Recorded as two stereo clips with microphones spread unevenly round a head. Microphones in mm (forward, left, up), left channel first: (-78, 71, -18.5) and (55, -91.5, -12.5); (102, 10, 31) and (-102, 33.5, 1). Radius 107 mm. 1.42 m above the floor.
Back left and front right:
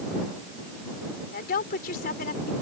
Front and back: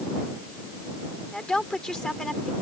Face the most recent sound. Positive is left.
turn(degrees=80)